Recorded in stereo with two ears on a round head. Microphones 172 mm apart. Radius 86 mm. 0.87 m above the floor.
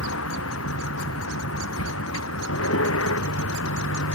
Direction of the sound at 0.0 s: 75° left (ahead or behind).